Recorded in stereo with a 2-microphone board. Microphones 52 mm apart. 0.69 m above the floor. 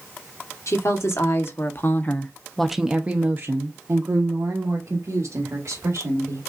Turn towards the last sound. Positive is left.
turn(degrees=-75)  # may be behind; listen again after turning